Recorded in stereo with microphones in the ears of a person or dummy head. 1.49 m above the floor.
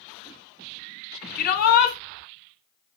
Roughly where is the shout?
Left.